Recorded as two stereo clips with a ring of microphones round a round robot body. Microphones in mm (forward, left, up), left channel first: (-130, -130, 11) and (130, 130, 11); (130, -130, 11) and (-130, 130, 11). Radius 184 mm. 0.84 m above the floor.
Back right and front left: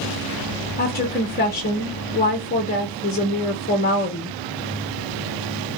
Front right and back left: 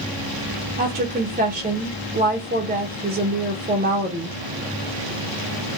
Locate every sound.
0.8 s a woman speaking: 175° right, 0.6 m